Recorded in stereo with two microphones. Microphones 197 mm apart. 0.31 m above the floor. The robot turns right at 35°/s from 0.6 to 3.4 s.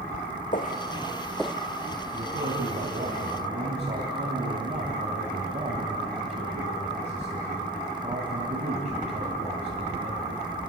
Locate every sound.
0.5 s footsteps: 45° left (ahead or behind), 1.4 m; by 1.6 s 10° right (ahead or behind), 0.5 m
2.1 s a man speaking: 90° right, 2.5 m; by 10.4 s 50° right, 2.5 m